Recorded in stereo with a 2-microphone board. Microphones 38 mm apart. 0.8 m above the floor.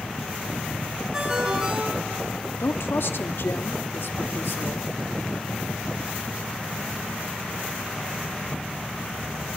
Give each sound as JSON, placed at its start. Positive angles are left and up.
{"t": 1.1, "sound": "a ringtone", "side_deg": -20, "distance_m": 5.5}
{"t": 2.6, "sound": "a woman speaking", "side_deg": 70, "distance_m": 1.2}